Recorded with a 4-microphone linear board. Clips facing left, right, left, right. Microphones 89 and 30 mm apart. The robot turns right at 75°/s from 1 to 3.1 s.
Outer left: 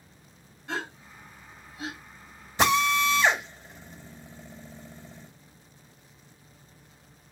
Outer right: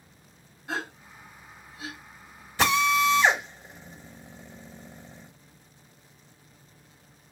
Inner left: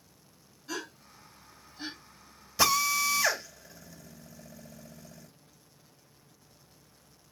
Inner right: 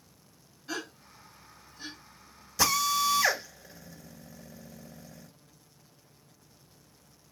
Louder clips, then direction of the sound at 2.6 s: Even, even; 25° left (ahead or behind).